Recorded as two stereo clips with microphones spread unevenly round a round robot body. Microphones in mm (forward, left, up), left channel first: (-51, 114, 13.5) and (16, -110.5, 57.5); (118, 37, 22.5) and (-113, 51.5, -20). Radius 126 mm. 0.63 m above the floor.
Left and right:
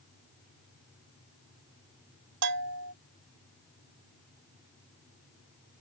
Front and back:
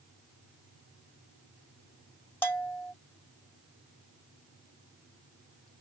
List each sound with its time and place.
2.4 s a bell: 90° right